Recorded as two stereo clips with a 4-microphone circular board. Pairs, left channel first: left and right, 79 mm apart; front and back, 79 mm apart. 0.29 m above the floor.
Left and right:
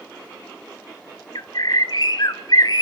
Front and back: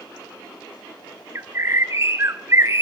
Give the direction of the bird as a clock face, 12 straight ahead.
8 o'clock.